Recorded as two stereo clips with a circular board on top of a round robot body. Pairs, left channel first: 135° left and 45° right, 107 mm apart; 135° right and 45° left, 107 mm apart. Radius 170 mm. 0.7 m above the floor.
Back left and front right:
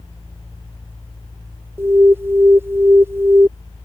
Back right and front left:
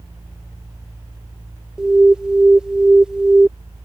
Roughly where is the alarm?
Ahead right.